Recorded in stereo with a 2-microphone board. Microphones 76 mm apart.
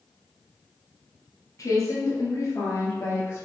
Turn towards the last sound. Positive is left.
turn(degrees=30)  # may be behind; listen again after turning